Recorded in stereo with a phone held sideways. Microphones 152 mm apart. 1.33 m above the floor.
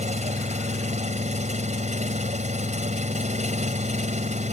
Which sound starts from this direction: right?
An engine running, at 0.0 s.